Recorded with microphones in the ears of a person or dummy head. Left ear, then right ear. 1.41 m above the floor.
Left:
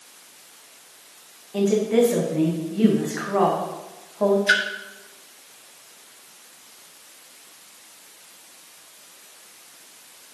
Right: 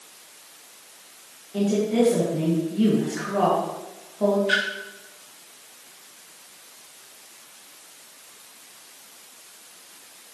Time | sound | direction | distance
1.5 | a woman speaking | 35° left (ahead or behind) | 1.4 m
4.5 | a splash | 60° left (ahead or behind) | 1.1 m